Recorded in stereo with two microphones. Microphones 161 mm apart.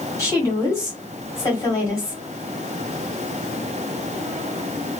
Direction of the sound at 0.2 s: 20° left (ahead or behind).